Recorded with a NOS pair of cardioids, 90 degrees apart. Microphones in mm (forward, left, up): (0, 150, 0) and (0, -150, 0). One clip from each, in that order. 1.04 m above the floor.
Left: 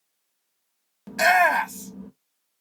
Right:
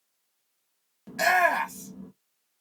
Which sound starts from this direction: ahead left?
A shout, at 1.1 s.